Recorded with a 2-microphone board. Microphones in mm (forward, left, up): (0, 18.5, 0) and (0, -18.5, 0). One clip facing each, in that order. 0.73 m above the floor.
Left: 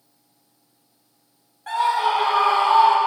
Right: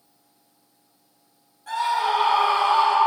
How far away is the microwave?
I don't hear a microwave.